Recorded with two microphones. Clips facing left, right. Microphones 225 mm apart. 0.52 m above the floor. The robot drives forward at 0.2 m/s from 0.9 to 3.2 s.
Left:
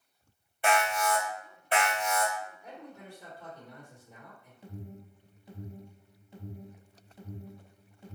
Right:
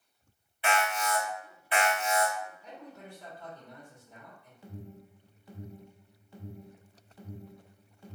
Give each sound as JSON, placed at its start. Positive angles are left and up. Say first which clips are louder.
{"t": 0.6, "sound": "an alarm", "louder": "left 2 dB", "side_deg": 50, "distance_m": 1.7}
{"t": 2.6, "sound": "a man speaking", "louder": "even", "side_deg": 10, "distance_m": 1.5}
{"t": 4.6, "sound": "an alarm", "louder": "left 1 dB", "side_deg": 20, "distance_m": 0.9}